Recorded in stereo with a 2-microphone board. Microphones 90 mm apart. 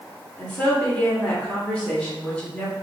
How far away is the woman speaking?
About 1.9 m.